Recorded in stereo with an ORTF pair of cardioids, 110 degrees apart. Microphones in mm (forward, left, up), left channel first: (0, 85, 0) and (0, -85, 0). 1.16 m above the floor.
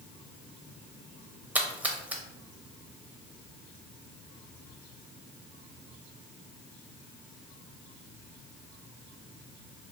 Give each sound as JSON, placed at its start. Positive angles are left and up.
{"t": 1.6, "sound": "a splash", "azimuth_deg": -10, "distance_m": 0.9}